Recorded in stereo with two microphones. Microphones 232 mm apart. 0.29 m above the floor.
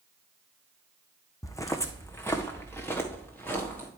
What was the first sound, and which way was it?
Footsteps, 15° left (ahead or behind).